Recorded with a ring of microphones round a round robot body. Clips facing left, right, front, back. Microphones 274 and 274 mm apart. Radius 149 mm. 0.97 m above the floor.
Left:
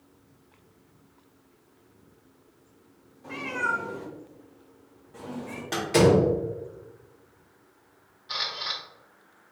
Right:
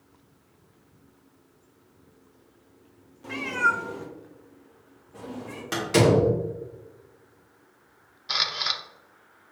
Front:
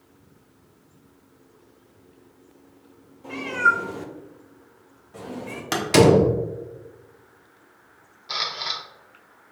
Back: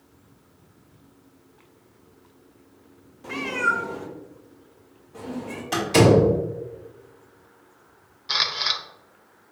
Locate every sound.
3.2 s a cat meowing: 125° right, 0.9 m; by 5.6 s 25° left, 2 m
5.7 s a door slam: 15° right, 1.3 m
8.3 s a camera shutter: 115° right, 0.7 m